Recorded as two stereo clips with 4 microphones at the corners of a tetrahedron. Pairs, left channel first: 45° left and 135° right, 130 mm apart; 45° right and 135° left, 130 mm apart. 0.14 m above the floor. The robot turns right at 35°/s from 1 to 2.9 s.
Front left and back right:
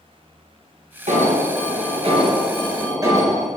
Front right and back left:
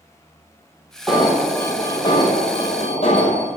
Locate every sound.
1.1 s an alarm: 140° right, 3 m; by 3.5 s 75° right, 3 m